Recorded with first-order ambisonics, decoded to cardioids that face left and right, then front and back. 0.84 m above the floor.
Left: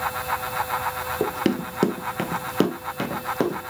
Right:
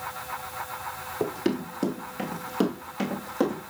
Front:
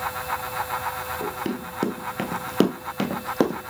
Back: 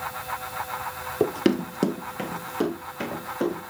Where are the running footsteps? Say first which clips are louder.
Left 2 dB, back 6 dB; 155° left, 1.2 m; by 3.7 s 15° left, 2 m.